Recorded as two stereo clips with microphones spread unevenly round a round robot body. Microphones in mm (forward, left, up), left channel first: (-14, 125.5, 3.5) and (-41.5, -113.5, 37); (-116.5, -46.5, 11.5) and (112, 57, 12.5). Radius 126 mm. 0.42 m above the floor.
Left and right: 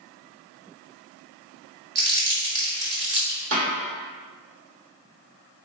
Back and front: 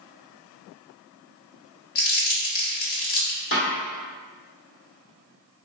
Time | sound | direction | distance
1.9 | crumpling | 140° right | 1.3 m
3.5 | a snare drum | 125° right | 1.6 m